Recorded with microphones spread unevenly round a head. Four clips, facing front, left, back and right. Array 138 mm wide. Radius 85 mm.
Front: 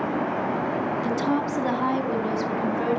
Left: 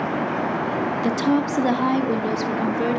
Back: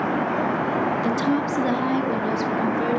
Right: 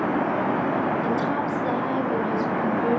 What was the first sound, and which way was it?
A woman speaking, 90° left.